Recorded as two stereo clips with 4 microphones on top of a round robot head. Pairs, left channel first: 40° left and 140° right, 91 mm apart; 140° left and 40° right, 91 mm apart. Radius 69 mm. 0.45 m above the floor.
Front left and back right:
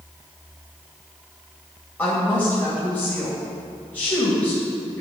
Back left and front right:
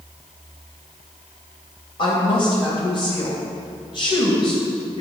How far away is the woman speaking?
About 2.5 m.